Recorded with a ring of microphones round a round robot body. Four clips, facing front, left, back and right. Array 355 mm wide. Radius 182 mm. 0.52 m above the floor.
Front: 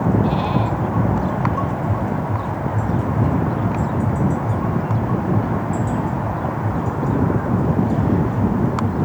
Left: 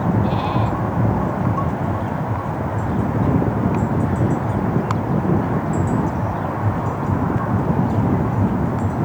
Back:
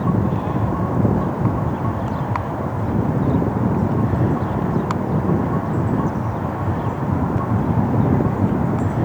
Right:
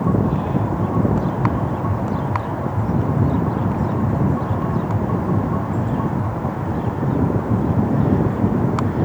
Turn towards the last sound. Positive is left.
No sound to turn to.